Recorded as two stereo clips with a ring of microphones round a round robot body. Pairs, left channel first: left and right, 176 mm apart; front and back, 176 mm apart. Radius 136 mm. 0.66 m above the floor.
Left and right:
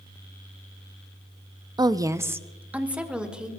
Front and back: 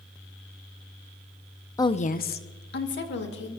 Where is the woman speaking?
50° right, 0.6 m; by 3.5 s 5° right, 2.5 m.